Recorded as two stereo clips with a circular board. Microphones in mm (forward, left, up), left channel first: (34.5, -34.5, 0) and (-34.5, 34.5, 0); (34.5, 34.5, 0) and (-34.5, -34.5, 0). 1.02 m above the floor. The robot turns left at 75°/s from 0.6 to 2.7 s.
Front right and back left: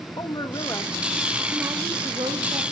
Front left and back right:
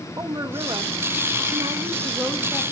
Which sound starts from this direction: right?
A woman speaking, at 0.2 s.